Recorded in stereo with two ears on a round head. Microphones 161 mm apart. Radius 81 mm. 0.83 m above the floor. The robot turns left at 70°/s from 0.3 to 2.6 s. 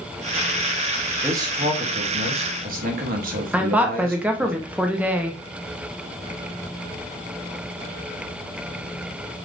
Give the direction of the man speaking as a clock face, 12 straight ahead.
12 o'clock.